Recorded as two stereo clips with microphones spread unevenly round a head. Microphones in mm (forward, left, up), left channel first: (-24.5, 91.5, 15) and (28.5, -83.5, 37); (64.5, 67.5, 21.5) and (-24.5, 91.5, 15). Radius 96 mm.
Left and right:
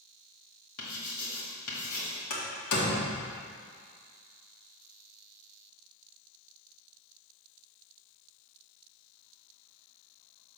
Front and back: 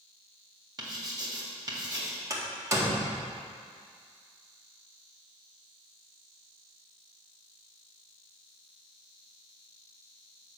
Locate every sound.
0.8 s writing: 120° left, 2.0 m
2.3 s a door slam: 110° left, 1.7 m